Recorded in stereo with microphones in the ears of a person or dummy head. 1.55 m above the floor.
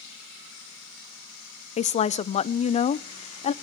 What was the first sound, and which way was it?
A woman speaking, 35° left (ahead or behind).